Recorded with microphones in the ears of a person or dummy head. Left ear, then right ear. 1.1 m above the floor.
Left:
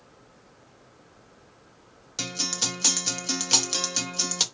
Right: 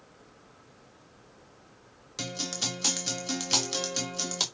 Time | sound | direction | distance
2.2 | a guitar | 5° left (ahead or behind) | 1.0 m